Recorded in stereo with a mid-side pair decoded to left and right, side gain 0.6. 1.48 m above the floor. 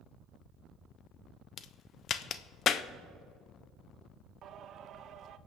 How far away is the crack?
About 0.7 m.